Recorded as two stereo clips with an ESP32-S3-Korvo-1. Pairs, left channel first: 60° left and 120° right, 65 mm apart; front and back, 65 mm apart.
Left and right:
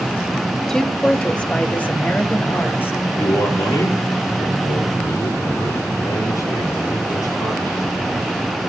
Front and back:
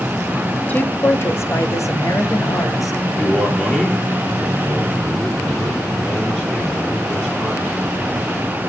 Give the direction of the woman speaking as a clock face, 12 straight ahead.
1 o'clock.